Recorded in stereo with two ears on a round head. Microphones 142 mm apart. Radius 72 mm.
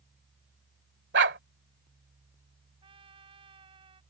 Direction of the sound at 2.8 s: 35° right (ahead or behind).